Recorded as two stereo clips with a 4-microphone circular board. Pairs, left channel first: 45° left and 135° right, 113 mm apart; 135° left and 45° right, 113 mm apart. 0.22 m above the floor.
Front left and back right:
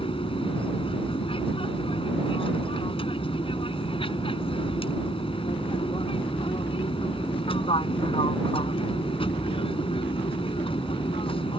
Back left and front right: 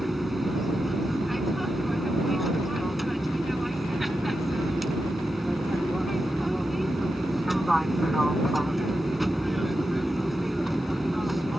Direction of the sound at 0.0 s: 45° left.